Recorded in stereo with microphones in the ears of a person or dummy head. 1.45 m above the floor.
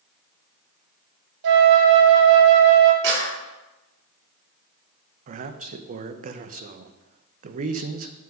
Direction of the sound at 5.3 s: 45° right (ahead or behind).